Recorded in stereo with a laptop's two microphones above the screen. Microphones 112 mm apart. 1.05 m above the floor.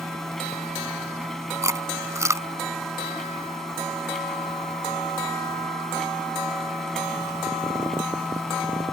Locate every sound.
0.0 s a machine running: 5° left (ahead or behind)
1.6 s chewing: 25° right (ahead or behind)